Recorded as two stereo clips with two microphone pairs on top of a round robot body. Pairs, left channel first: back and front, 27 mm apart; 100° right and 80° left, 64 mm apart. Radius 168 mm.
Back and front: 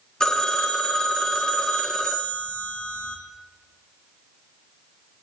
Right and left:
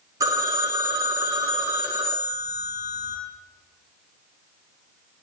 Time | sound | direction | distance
0.2 | a phone ringing | 115° left | 0.8 m